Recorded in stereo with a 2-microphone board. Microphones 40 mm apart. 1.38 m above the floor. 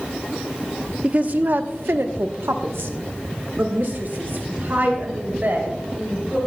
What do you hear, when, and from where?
1.0 s a woman speaking: 35° right (ahead or behind), 0.9 m; by 6.4 s 50° right (ahead or behind), 3.5 m